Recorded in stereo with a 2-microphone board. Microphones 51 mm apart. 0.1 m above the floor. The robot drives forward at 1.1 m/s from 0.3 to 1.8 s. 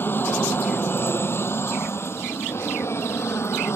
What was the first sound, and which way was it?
An aircraft, 45° left (ahead or behind).